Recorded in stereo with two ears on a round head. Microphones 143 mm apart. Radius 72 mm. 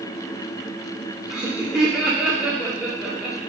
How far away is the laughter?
About 0.9 m.